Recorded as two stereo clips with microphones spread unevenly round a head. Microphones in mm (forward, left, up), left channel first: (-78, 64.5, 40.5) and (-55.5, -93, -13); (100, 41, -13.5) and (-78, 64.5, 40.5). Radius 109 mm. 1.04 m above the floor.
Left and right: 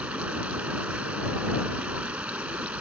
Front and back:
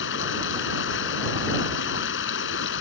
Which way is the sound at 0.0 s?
5° left.